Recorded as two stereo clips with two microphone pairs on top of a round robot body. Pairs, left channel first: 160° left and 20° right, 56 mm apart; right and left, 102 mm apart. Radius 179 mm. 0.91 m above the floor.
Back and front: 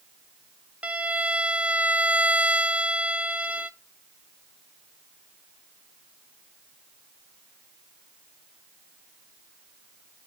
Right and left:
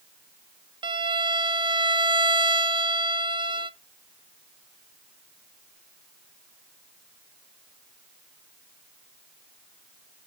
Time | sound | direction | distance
0.8 | a violin | 55° left | 0.6 m